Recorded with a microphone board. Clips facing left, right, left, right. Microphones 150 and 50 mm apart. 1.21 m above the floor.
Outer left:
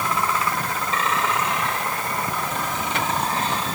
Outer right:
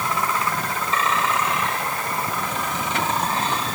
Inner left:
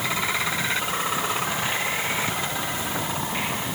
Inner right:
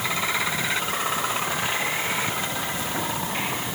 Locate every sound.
Only background noise.